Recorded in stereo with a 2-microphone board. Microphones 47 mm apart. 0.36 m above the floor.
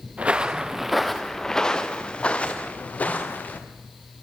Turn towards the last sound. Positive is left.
turn(degrees=40)  # may be behind; listen again after turning